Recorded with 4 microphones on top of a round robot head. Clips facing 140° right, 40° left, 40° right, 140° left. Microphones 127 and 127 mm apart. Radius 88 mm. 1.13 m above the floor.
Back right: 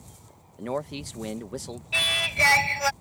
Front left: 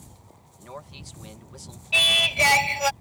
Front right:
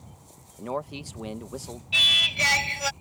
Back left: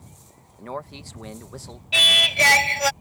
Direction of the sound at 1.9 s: 110° left.